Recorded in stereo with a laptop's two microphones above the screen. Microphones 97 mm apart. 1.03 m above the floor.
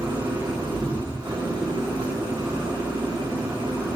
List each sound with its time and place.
0.0 s an engine running: 60° right (ahead or behind), 2.5 m